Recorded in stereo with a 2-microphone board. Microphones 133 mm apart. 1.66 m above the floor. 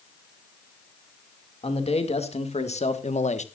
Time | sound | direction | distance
1.6 | a man speaking | 50° left (ahead or behind) | 2.5 m